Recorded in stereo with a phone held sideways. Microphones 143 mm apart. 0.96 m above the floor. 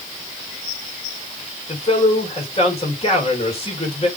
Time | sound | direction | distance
1.7 | a man speaking | 45° left (ahead or behind) | 4.5 m